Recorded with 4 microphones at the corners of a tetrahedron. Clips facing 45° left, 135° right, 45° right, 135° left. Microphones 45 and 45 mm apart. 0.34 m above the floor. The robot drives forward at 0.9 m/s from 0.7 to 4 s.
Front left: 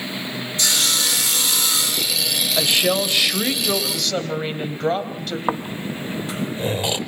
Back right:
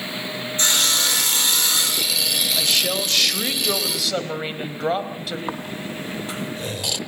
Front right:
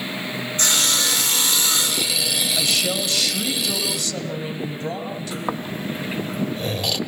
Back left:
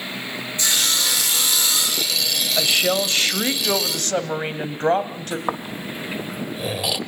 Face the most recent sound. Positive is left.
turn(degrees=65)